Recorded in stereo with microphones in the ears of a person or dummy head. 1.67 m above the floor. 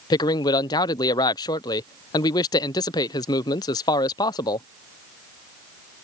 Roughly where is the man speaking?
Centre.